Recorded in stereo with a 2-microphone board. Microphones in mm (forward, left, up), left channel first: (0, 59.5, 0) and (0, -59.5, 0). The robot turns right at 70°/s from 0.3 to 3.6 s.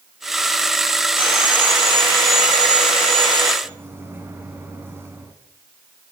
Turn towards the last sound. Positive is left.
turn(degrees=-20)  # may be behind; listen again after turning